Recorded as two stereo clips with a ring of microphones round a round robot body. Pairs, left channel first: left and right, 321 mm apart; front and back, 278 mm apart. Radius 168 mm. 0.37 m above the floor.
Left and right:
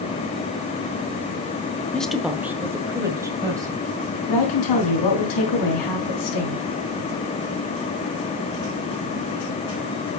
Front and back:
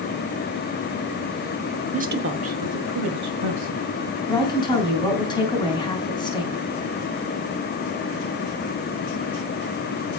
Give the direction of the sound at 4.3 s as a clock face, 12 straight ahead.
10 o'clock.